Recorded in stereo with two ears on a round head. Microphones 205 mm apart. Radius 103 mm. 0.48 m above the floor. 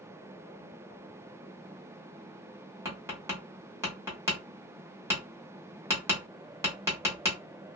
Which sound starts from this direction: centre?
Tapping, at 2.9 s.